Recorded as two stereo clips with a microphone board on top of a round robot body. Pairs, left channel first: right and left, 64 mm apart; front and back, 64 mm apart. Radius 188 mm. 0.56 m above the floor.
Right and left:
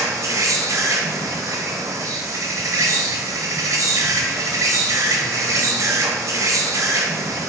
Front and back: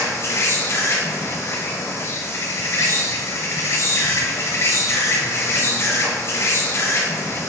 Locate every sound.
0.0 s an insect: 50° left, 0.9 m